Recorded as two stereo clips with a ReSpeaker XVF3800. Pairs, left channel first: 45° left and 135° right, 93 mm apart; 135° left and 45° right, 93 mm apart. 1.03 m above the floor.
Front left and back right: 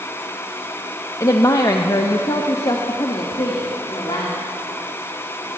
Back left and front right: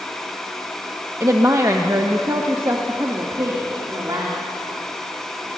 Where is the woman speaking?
Straight ahead, 1.0 m; by 4.3 s 10° left, 3 m.